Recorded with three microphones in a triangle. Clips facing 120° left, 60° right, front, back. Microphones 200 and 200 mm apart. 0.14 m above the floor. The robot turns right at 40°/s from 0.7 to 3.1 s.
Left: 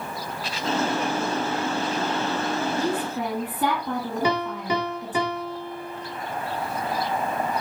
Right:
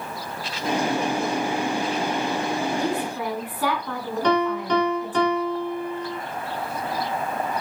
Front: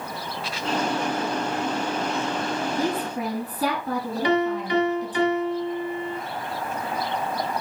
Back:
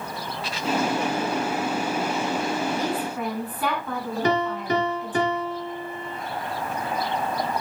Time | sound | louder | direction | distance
2.7 | a woman speaking | even, front 1 dB | 40° left | 5 m
4.2 | a piano | right 6 dB, front 2 dB | 160° right | 2.0 m